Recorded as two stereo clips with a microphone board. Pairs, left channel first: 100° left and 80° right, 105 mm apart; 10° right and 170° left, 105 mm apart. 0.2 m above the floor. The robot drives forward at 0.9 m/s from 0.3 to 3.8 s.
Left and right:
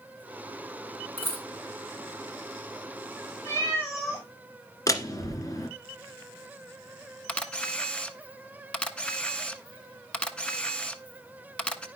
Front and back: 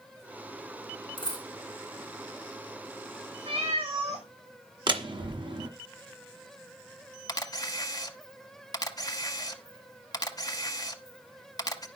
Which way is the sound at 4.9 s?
145° left.